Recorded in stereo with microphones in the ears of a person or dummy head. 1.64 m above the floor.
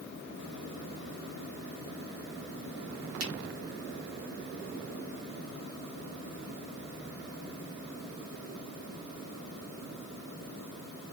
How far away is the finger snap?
About 1.3 m.